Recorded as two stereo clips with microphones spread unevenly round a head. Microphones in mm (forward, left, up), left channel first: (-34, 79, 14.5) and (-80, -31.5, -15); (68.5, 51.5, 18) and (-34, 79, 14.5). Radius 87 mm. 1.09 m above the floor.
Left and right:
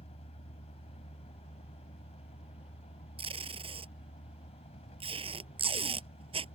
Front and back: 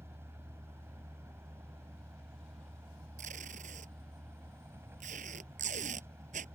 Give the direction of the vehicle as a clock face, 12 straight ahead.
9 o'clock.